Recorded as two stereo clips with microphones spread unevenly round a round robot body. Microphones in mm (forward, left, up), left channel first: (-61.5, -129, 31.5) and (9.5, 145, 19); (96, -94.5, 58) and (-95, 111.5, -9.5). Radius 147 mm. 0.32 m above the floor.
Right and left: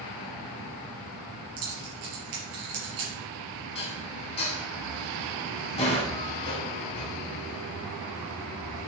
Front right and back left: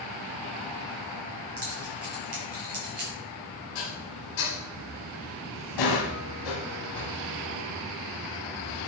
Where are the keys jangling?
75° left, 4.5 m.